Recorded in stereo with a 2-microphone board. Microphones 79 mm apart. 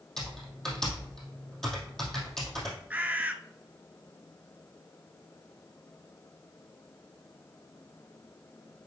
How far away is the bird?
About 0.6 m.